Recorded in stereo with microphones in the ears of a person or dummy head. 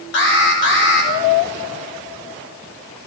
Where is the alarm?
65° left (ahead or behind), 7.5 m.